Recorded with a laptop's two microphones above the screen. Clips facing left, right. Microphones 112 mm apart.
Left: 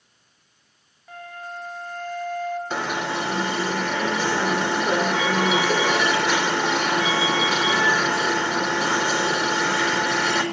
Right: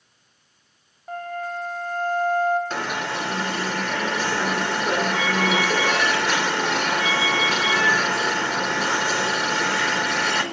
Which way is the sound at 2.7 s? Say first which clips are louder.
Left 1 dB; 10° left (ahead or behind).